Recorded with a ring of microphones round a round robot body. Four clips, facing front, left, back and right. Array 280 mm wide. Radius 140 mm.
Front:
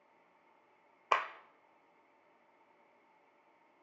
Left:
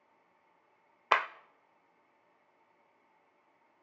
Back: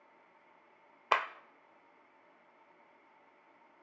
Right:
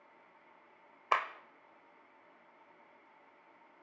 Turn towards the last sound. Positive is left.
turn(degrees=110)